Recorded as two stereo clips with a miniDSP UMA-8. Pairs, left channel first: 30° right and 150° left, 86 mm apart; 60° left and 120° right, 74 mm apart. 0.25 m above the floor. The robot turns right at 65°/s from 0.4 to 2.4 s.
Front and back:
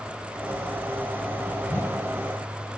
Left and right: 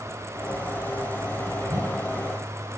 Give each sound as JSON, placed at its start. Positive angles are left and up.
{"t": 1.7, "sound": "a whoosh", "azimuth_deg": -95, "distance_m": 1.5}